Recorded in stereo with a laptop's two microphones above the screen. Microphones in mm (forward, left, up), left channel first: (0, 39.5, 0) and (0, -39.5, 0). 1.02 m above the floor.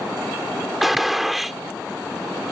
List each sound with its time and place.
0.8 s a gunshot: centre (ahead or behind)